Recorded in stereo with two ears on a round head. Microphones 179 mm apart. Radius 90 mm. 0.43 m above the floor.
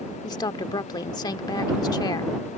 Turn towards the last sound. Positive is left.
turn(degrees=20)  # may be behind; listen again after turning